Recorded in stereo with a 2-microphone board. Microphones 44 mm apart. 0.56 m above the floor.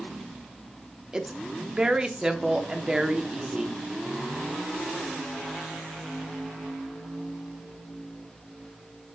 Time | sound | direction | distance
1.1 | a woman speaking | 20° right (ahead or behind) | 0.8 m